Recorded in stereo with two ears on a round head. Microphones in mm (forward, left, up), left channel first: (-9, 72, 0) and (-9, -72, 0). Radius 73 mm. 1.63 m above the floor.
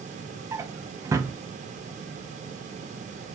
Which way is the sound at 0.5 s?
20° right (ahead or behind).